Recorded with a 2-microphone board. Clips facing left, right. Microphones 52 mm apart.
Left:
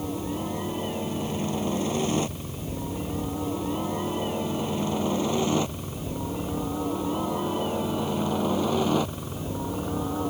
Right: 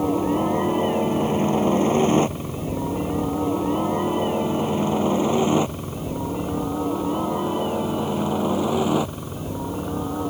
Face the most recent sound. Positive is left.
turn(degrees=-10)  # may be behind; listen again after turning